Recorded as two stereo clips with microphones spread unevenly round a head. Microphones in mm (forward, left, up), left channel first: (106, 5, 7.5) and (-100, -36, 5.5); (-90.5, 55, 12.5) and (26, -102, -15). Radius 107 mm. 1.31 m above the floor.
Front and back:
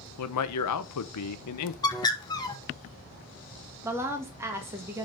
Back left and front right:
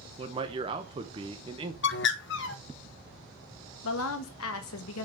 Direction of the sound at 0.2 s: 15° left.